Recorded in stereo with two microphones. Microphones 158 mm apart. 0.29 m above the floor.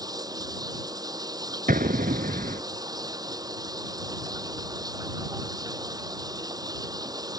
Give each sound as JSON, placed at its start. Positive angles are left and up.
{"t": 0.0, "sound": "running water", "side_deg": -25}
{"t": 1.7, "sound": "an explosion", "side_deg": -75}